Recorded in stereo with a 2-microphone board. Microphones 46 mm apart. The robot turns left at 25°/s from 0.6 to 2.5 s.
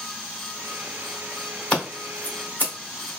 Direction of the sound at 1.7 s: 25° left (ahead or behind).